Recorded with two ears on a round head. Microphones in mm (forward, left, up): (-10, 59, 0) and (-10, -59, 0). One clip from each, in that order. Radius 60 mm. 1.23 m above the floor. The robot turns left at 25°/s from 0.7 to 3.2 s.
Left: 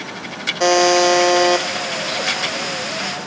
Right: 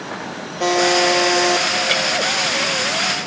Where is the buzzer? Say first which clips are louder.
Left 2 dB; 45° left (ahead or behind), 0.5 m; by 1.7 s 20° left (ahead or behind), 0.5 m.